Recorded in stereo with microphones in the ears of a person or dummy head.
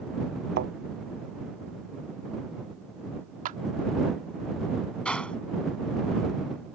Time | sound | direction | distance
0.6 | a thud | 55° right (ahead or behind) | ?
3.5 | a clap | 45° right (ahead or behind) | ?
5.0 | a gunshot | 5° left (ahead or behind) | ?